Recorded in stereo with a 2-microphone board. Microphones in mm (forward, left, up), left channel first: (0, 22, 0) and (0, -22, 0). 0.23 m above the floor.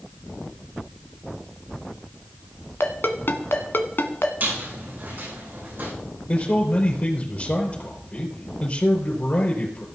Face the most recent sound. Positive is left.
turn(degrees=35)  # may be behind; listen again after turning